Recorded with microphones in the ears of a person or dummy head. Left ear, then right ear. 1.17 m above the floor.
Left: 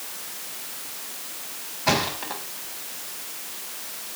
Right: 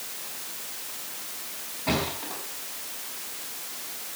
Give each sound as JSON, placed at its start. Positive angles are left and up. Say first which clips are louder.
{"t": 1.9, "sound": "a thud", "louder": "left 5 dB", "side_deg": 70, "distance_m": 4.0}